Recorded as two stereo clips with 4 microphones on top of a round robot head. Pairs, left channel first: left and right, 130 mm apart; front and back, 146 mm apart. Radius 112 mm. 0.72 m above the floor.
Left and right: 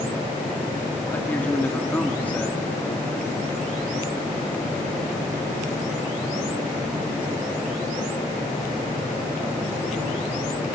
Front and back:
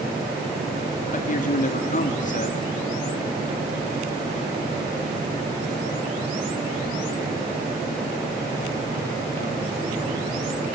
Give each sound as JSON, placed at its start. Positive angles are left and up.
{"t": 1.1, "sound": "a man speaking", "azimuth_deg": 10, "distance_m": 1.8}